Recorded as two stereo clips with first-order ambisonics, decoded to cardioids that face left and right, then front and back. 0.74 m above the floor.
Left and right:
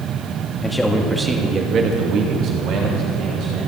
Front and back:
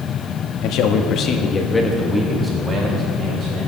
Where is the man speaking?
5° left, 1.4 m; by 3.7 s 125° right, 2.5 m.